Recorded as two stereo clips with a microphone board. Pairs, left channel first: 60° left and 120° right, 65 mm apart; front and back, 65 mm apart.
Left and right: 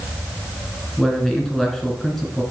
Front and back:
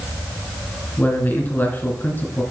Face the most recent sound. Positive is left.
turn(degrees=-20)